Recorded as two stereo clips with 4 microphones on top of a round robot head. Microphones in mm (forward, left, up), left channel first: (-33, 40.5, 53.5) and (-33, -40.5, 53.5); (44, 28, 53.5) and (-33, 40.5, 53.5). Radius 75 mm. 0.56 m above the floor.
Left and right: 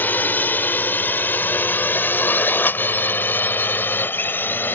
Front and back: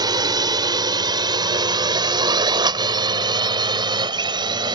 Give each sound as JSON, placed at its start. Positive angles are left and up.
{"t": 0.0, "sound": "a drone", "azimuth_deg": 155}